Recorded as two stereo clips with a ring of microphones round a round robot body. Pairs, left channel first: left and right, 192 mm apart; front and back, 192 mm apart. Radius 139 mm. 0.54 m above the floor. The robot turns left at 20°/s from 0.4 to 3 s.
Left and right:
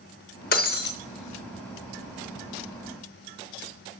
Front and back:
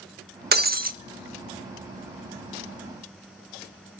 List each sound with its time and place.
0.5 s breaking glass: 145° left, 0.7 m; by 0.9 s 135° left, 0.7 m